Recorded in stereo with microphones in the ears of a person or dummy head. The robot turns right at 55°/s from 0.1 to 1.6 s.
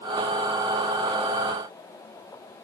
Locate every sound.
Only background noise.